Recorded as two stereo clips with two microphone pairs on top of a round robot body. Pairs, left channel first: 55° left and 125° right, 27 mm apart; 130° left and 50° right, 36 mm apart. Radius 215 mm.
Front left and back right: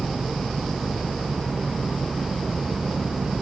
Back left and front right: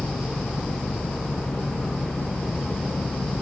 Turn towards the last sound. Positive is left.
turn(degrees=160)